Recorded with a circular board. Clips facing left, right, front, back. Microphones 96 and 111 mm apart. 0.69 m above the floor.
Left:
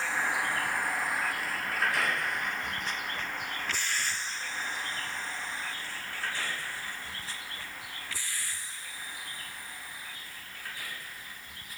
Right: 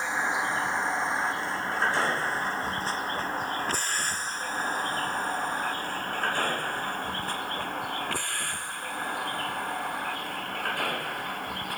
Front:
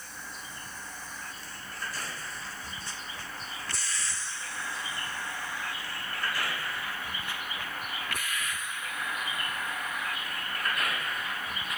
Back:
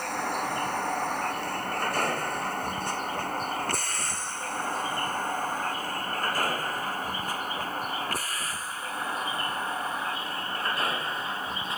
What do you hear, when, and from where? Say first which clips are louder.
0.0 s a vehicle: right 3 dB, back 16 dB; 160° right; by 11.8 s 120° right